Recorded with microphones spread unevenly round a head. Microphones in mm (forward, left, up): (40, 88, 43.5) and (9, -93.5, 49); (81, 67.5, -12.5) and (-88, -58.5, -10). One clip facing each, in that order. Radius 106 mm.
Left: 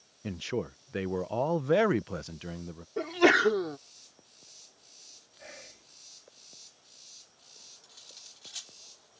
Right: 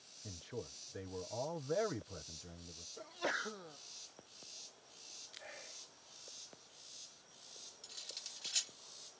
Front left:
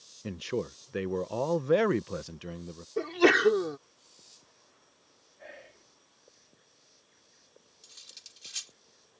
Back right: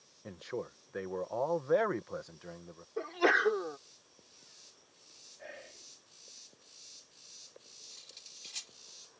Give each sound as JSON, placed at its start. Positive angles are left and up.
{"t": 0.2, "sound": "a man speaking", "azimuth_deg": 85}
{"t": 3.0, "sound": "a sneeze", "azimuth_deg": 80}
{"t": 5.4, "sound": "whispering", "azimuth_deg": 130}
{"t": 7.8, "sound": "cutlery clinking", "azimuth_deg": -35}